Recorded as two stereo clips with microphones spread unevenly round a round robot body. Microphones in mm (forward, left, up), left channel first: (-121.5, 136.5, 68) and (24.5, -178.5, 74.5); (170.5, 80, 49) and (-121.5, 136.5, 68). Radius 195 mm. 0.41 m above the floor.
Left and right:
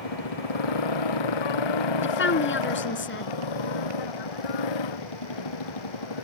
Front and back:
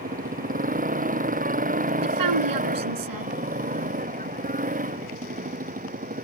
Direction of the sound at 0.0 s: 105° left.